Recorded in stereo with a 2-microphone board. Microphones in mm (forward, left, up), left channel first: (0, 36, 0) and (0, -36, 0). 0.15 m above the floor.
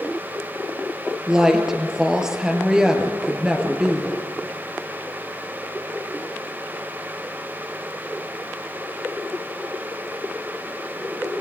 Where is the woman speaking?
10° right (ahead or behind), 3.5 m.